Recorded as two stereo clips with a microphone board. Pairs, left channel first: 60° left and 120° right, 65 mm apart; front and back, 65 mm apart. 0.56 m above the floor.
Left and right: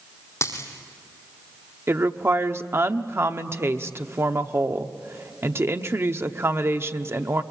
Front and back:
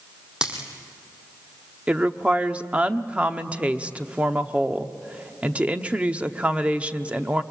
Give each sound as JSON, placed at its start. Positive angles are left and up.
{"t": 0.4, "sound": "a dropped coin", "azimuth_deg": 105, "distance_m": 3.0}
{"t": 1.9, "sound": "a woman speaking", "azimuth_deg": -120, "distance_m": 0.9}